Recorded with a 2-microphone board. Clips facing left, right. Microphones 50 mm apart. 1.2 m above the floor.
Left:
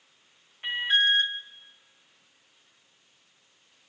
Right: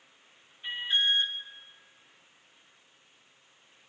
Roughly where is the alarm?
Left.